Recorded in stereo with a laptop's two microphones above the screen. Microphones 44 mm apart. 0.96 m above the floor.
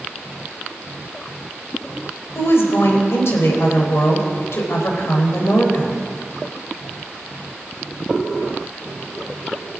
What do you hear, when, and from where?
2.4 s a woman speaking: 65° left (ahead or behind), 4 m